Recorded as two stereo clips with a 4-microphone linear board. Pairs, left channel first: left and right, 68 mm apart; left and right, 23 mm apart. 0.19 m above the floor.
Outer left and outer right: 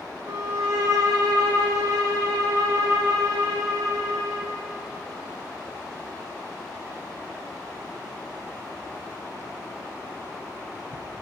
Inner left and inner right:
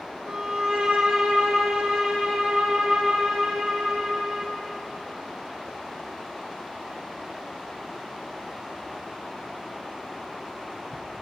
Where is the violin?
80° right, 6 m.